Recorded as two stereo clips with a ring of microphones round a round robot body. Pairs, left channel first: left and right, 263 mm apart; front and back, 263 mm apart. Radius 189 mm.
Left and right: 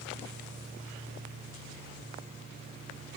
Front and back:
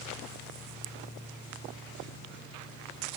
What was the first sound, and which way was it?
Only background noise.